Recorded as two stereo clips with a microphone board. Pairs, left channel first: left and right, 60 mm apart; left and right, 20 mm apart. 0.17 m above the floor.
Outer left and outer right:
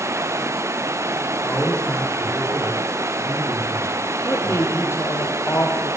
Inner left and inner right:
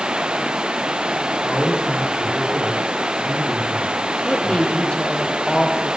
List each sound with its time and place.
0.0 s running water: 55° right (ahead or behind), 1.6 m
1.4 s a man speaking: 25° left (ahead or behind), 10 m
4.2 s a woman speaking: 50° left (ahead or behind), 5.5 m